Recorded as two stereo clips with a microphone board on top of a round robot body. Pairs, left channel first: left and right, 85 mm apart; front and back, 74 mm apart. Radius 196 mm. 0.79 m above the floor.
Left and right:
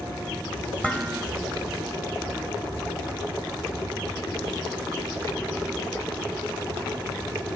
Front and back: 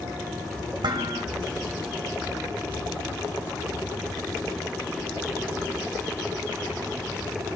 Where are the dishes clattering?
165° left, 1.1 m.